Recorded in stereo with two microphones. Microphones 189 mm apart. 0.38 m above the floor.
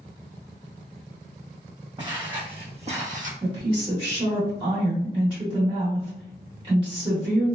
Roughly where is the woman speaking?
Right.